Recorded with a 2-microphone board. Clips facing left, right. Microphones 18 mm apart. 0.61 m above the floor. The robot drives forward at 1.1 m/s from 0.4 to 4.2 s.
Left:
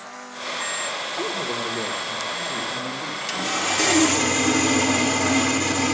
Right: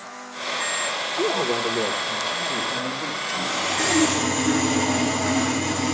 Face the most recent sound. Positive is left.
turn(degrees=45)  # may be behind; listen again after turning